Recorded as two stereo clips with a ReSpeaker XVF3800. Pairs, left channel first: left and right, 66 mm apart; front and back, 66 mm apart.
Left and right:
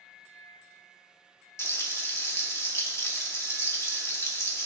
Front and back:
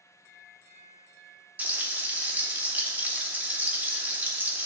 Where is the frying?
125° left, 1.5 m.